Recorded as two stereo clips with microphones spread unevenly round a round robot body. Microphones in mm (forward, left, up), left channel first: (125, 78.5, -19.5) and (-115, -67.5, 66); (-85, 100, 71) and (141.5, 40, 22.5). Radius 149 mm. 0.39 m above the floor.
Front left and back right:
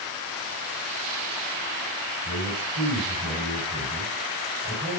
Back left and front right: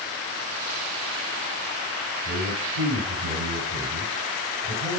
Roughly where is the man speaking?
Right.